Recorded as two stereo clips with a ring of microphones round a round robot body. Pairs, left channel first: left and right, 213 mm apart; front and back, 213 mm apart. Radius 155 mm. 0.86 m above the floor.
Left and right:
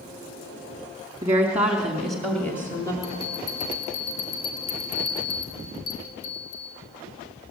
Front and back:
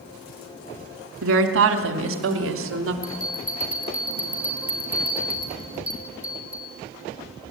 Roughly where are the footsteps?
No footsteps in this recording.